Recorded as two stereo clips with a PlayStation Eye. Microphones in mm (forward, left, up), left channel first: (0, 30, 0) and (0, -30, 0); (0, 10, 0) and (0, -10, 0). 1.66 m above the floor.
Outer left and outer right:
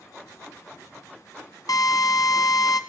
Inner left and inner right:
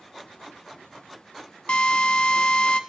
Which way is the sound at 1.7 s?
75° left (ahead or behind).